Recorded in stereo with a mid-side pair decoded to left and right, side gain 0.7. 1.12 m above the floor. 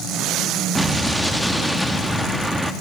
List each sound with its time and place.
0.8 s an explosion: 5° right, 1.8 m